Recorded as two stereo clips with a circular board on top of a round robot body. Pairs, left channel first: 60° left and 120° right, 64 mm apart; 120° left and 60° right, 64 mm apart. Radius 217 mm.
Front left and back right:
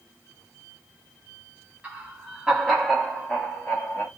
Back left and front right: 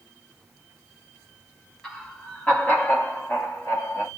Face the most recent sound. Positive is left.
turn(degrees=105)